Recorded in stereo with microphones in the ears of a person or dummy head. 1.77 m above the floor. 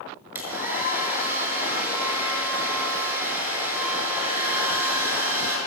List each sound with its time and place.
0.3 s a hair dryer: 10° right (ahead or behind), 6 m